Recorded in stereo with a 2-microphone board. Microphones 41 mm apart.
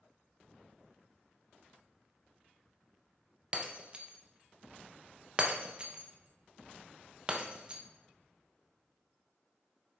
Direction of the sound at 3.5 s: 25° right (ahead or behind).